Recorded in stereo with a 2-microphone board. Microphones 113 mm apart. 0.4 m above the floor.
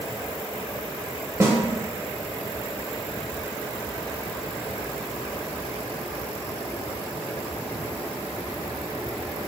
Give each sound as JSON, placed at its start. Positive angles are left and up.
{"t": 1.4, "sound": "a snare drum", "side_deg": -25, "distance_m": 0.7}